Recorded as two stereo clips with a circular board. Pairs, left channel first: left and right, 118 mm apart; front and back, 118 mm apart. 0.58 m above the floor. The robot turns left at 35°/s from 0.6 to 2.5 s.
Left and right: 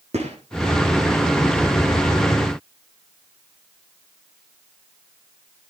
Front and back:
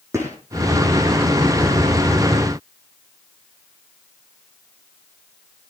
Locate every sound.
0.1 s a gunshot: 115° right, 7.5 m